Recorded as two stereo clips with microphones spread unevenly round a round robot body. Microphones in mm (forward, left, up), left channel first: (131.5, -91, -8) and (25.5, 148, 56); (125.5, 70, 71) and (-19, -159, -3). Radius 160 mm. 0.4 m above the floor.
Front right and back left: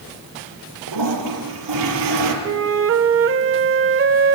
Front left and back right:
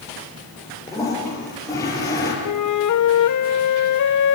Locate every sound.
0.9 s a toilet flushing: 140° left, 5.5 m
2.4 s a flute: 75° left, 1.5 m